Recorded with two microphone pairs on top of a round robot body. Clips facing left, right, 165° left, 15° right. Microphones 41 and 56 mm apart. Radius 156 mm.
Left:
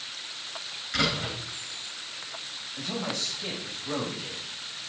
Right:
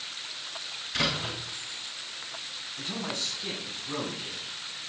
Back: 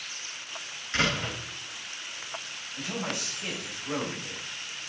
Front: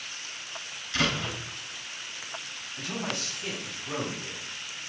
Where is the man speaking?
95° left, 5.5 m.